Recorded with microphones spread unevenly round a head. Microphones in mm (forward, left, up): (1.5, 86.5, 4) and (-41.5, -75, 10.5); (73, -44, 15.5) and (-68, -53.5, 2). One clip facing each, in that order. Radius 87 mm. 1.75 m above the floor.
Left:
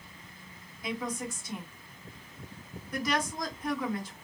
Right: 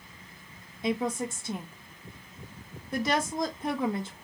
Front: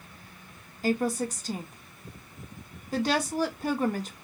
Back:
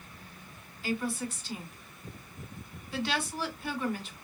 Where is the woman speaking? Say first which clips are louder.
Right 6 dB, front 6 dB; 40° right, 0.8 m.